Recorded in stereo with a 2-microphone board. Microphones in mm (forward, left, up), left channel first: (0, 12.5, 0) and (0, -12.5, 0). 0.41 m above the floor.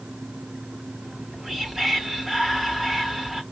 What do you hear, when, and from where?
1.0 s whispering: 20° right (ahead or behind), 1.0 m